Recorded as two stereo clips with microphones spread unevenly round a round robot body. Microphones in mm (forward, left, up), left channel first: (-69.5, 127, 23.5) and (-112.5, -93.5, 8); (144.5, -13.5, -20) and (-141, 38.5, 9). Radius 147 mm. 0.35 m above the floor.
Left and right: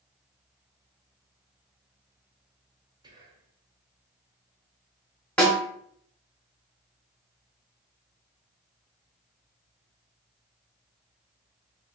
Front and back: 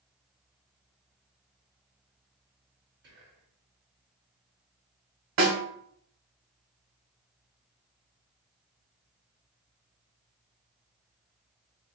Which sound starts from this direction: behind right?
Whispering, at 3.0 s.